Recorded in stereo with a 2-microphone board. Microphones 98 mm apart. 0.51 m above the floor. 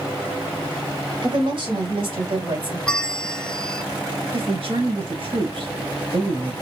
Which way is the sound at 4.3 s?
65° right (ahead or behind).